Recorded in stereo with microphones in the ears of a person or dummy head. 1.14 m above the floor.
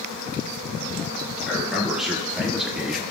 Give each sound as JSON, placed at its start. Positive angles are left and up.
{"t": 1.5, "sound": "a man speaking", "side_deg": 0, "distance_m": 2.5}